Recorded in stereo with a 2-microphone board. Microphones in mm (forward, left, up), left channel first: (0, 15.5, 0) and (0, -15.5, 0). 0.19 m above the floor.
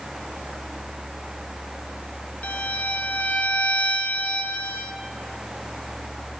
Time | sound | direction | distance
2.4 | a violin | 60° left (ahead or behind) | 0.8 m